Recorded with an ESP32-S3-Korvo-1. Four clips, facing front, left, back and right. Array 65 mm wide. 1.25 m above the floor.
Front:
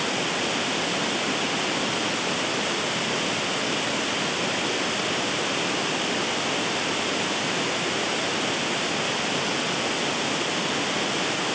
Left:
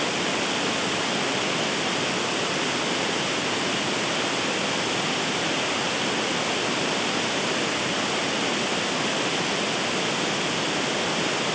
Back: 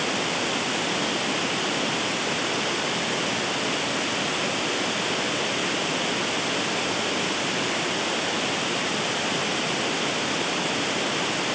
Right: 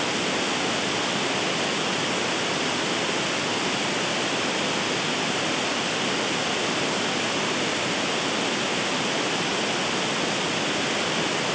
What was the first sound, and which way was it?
Only background noise.